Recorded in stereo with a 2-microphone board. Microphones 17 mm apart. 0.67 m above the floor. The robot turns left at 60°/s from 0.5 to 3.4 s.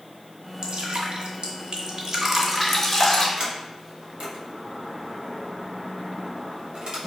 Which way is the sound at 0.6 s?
50° right (ahead or behind).